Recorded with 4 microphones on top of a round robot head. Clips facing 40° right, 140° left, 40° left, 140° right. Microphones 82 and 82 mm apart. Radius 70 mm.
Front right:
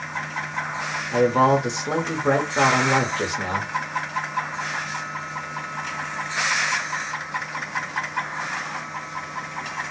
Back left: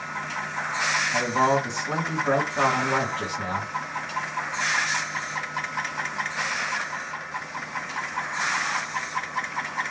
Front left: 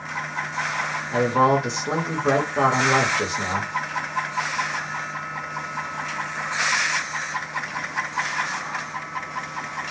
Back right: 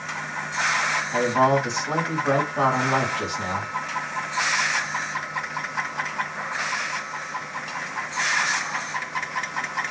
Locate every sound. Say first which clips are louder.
1.1 s a man speaking: front right 6 dB, front left 2 dB; 20° right, 0.9 m